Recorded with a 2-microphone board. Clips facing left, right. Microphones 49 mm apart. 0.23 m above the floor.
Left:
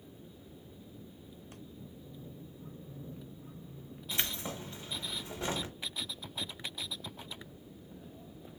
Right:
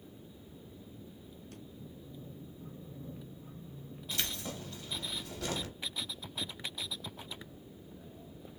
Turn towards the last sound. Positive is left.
turn(degrees=20)  # may be behind; listen again after turning